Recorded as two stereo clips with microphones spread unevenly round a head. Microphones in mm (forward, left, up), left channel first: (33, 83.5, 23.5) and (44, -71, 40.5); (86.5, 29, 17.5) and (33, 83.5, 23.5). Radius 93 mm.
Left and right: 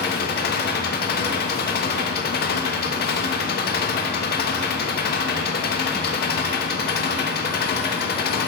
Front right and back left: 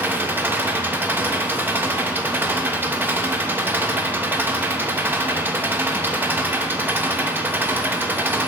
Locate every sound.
0.0 s an engine running: 70° left, 1.1 m